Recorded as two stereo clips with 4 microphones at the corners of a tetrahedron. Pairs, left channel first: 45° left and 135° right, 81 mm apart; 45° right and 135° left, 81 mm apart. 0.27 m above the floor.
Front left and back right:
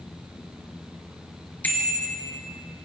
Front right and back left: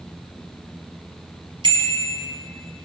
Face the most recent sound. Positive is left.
turn(degrees=115)